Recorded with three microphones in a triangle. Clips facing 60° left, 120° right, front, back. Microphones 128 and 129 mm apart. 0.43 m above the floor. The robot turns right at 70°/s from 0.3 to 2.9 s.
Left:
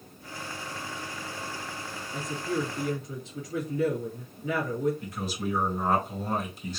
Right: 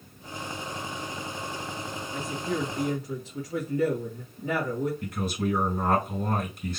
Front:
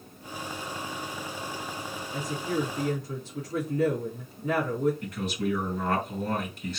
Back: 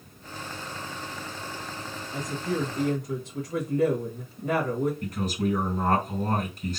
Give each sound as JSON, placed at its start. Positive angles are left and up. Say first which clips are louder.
{"t": 2.1, "sound": "a woman speaking", "louder": "even, back 1 dB", "azimuth_deg": 140, "distance_m": 1.9}
{"t": 5.0, "sound": "a man speaking", "louder": "right 4 dB, back 2 dB", "azimuth_deg": -145, "distance_m": 3.0}